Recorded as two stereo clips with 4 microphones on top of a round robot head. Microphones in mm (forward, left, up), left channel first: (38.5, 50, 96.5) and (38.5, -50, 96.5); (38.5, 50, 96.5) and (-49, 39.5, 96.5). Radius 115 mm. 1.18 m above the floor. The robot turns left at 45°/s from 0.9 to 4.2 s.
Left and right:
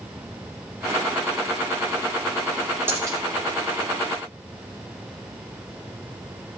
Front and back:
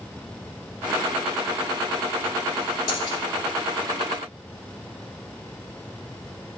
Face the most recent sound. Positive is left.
turn(degrees=-80)